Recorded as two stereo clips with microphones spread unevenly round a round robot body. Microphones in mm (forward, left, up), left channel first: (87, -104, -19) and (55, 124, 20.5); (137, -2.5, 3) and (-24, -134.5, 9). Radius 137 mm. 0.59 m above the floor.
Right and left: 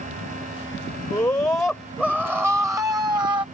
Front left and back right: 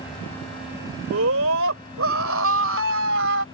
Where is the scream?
160° right; by 3.4 s 175° left.